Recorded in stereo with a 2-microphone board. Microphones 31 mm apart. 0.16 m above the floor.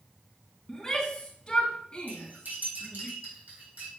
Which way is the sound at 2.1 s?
70° right (ahead or behind).